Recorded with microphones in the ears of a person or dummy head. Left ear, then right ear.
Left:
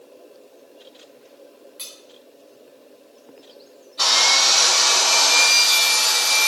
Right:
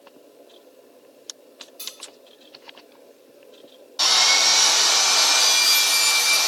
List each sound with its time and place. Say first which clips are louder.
1.8 s cutlery clinking: right 1 dB; 20° left (ahead or behind), 1.7 m
4.0 s sawing: left 1 dB; 10° right (ahead or behind), 1.2 m